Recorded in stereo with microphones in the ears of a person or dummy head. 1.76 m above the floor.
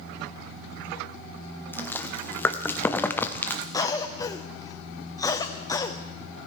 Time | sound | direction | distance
1.7 | chewing | 10° left (ahead or behind) | 0.6 m
3.7 | a cough | 15° left (ahead or behind) | 0.5 m